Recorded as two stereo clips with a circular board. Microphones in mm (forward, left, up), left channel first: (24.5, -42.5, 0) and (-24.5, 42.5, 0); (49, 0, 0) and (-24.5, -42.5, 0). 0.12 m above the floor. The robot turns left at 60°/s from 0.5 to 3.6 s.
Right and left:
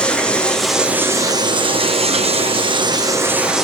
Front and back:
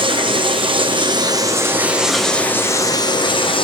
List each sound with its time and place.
0.0 s running water: 140° right, 1.2 m; by 3.6 s 35° left, 1.2 m